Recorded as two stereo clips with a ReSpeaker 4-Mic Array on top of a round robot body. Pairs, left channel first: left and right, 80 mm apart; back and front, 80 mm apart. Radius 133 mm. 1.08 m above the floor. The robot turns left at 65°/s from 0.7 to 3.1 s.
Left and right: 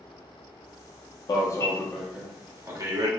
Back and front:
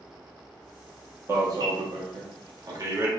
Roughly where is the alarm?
Ahead left.